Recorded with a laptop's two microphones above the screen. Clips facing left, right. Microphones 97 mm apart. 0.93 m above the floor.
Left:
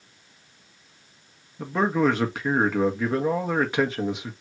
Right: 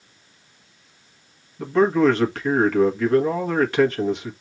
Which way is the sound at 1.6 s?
10° left (ahead or behind).